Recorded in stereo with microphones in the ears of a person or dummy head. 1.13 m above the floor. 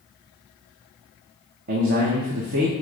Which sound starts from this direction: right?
A man speaking, at 1.7 s.